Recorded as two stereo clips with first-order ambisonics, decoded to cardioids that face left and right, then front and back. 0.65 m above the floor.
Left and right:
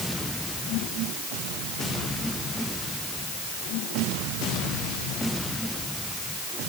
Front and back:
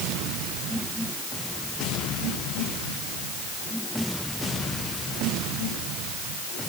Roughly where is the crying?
I don't hear crying.